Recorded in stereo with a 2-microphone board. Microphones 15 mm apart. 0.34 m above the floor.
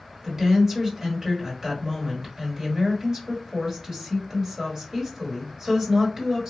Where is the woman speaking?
30° right (ahead or behind), 1.5 m.